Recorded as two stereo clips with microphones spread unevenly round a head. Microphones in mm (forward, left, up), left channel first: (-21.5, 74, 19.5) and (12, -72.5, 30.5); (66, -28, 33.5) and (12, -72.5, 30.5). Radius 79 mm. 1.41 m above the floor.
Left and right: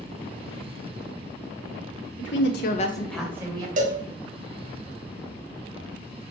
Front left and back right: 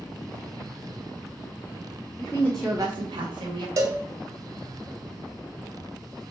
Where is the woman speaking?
100° left, 1.2 m; by 3.7 s 145° right, 1.4 m.